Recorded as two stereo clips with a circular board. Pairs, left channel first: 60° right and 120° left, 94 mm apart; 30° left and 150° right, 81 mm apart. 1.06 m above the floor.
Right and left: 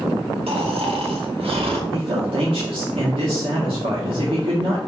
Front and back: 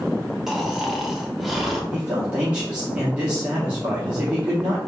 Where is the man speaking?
135° left, 1.8 m.